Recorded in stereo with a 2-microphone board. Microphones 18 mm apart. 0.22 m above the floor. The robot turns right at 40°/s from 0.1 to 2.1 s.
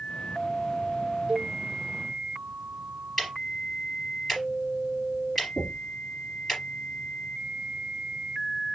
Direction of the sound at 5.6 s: Centre (ahead or behind).